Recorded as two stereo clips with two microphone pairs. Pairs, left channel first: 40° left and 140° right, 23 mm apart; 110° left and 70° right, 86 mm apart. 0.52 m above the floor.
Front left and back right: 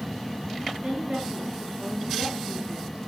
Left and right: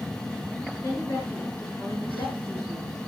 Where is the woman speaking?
165° left, 8 m.